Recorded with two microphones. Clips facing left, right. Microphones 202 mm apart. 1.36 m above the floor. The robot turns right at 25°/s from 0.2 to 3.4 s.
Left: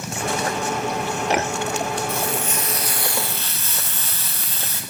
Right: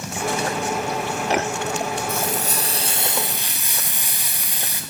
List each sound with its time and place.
2.1 s frying: 45° right, 0.9 m; by 4.8 s 15° right, 0.9 m